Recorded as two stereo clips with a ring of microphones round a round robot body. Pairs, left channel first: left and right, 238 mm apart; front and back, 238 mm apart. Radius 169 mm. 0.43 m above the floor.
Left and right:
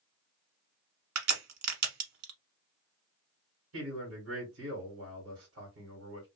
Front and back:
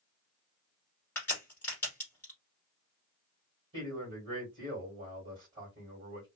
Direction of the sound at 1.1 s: 85° right.